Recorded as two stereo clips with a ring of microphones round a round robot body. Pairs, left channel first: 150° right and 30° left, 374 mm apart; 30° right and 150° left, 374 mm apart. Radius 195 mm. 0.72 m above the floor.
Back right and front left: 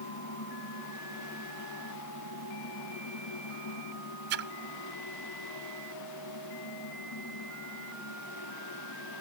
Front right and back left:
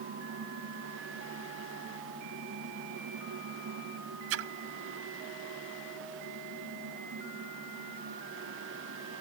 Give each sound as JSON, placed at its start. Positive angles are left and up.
{"t": 4.3, "sound": "a splash", "azimuth_deg": 95}